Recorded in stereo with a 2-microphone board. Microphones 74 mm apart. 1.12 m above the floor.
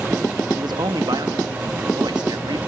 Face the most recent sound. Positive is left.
turn(degrees=-75)  # may be behind; listen again after turning